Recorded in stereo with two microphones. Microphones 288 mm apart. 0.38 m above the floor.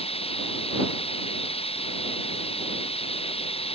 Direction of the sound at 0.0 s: 20° left (ahead or behind).